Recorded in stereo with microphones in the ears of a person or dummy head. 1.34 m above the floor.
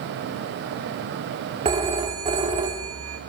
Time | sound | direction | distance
1.6 | a phone ringing | 25° right (ahead or behind) | 2 m